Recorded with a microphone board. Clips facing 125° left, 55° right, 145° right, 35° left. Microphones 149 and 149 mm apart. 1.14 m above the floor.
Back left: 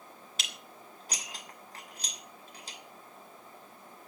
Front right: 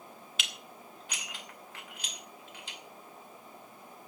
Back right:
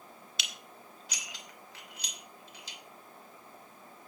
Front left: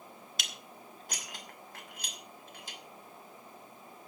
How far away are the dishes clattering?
About 2.5 m.